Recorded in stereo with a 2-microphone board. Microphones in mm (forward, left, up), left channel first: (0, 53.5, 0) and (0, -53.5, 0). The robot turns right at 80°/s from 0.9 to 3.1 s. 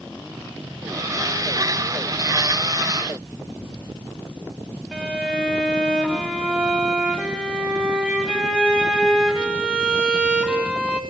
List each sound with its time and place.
4.9 s a violin: 10° right (ahead or behind), 10 m